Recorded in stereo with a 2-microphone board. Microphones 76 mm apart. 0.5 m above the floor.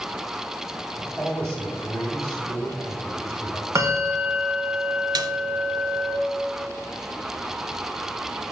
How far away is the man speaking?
About 3.5 m.